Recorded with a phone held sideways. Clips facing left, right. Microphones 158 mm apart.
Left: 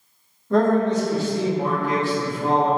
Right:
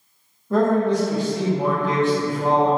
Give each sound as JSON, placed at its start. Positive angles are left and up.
{"t": 0.5, "sound": "a man speaking", "side_deg": -5, "distance_m": 0.6}